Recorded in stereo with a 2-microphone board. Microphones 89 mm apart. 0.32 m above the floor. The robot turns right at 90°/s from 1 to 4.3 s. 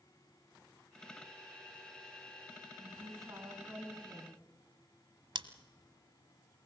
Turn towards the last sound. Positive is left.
turn(degrees=-70)  # may be behind; listen again after turning